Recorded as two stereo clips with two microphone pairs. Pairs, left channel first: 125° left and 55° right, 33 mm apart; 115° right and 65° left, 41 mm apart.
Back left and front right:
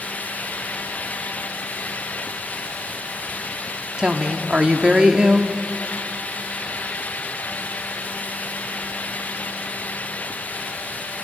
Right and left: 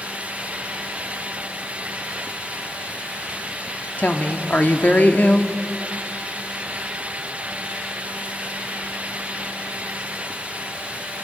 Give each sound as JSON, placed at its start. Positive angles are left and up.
{"t": 4.0, "sound": "a woman speaking", "azimuth_deg": -105, "distance_m": 1.3}